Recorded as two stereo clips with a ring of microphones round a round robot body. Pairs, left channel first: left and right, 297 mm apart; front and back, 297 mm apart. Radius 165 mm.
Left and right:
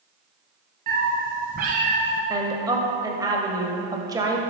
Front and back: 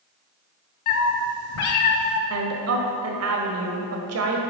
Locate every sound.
0.9 s a cat meowing: 25° right, 1.2 m
2.3 s a woman speaking: 165° right, 1.6 m